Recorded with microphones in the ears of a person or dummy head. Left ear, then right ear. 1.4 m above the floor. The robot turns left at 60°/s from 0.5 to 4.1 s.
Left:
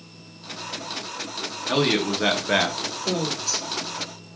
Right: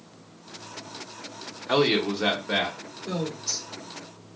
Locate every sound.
1.7 s a man speaking: 170° right, 0.7 m; by 2.8 s 120° left, 0.7 m
3.0 s a woman speaking: 45° left, 1.2 m; by 3.7 s 10° left, 1.2 m